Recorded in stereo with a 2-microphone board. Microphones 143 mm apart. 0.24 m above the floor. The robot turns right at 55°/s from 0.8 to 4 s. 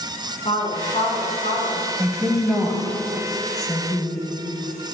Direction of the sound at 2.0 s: 15° right (ahead or behind).